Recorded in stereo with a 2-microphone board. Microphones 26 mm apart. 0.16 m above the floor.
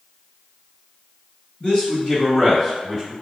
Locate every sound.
1.6 s a man speaking: 35° left (ahead or behind), 1.7 m; by 3.1 s 25° right (ahead or behind), 1.5 m